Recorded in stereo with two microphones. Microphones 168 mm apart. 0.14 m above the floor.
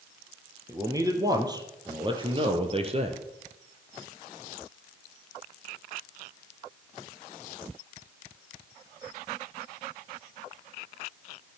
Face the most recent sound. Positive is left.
turn(degrees=-40)  # may be behind; listen again after turning